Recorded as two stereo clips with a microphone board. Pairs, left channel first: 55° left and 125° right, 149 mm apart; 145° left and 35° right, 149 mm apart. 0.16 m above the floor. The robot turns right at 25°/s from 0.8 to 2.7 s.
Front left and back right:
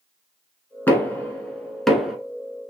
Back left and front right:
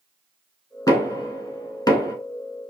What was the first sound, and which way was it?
Knocking, 115° left.